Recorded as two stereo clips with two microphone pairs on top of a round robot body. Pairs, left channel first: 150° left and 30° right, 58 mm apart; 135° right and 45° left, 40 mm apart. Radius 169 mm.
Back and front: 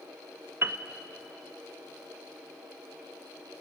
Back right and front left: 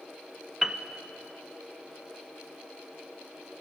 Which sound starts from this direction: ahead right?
A piano, at 0.6 s.